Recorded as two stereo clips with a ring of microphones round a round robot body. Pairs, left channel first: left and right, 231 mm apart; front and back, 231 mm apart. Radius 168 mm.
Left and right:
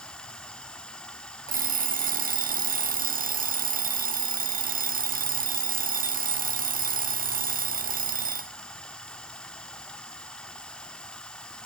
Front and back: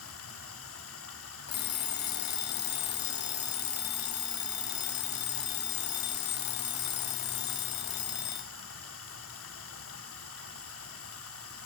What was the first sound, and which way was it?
Running water, 5° left.